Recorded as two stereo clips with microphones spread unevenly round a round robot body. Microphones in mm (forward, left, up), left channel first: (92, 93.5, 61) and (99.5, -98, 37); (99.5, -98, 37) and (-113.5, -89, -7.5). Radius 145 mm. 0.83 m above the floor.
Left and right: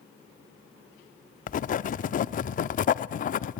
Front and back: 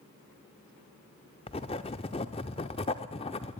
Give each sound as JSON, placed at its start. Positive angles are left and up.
{"t": 1.5, "sound": "writing", "azimuth_deg": 60, "distance_m": 0.6}